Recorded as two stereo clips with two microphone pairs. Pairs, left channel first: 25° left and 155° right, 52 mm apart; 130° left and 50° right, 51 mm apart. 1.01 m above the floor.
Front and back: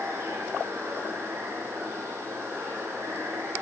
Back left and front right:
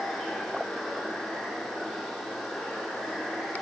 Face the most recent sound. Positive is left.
turn(degrees=-140)